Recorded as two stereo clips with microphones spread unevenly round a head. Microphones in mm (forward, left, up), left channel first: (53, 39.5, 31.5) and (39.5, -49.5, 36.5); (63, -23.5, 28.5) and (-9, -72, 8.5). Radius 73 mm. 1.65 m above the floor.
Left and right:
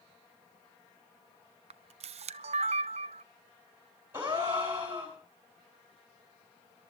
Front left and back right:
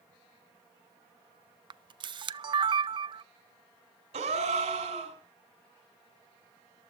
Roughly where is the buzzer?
No buzzer in this recording.